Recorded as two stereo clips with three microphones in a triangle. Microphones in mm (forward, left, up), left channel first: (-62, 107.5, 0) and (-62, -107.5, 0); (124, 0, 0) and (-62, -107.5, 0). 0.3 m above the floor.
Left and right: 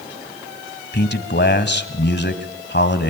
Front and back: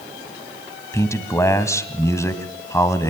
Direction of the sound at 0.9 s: 105° left.